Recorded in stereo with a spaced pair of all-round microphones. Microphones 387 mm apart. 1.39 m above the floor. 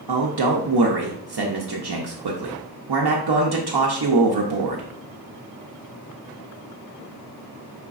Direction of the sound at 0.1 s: 80° right.